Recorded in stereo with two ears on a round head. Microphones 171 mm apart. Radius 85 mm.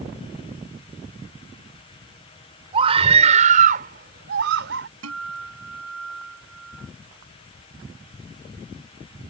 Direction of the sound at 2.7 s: 30° right (ahead or behind).